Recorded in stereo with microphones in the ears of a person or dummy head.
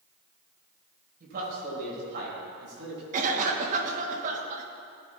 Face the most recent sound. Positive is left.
turn(degrees=-45)  # may be behind; listen again after turning